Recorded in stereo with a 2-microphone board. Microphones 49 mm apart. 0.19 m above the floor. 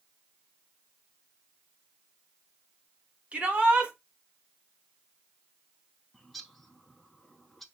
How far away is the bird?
About 0.8 m.